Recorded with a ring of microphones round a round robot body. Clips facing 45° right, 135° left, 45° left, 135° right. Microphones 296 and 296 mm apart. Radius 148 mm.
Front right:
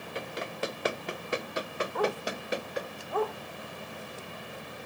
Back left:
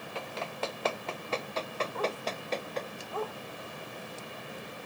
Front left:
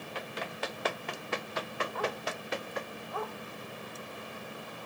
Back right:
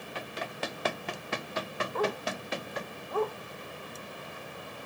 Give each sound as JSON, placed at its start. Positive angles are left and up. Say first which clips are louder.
{"t": 0.1, "sound": "running footsteps", "louder": "front right 2 dB, back right 1 dB", "azimuth_deg": -120}
{"t": 1.9, "sound": "a dog barking", "louder": "front right 6 dB, back right 7 dB", "azimuth_deg": -85}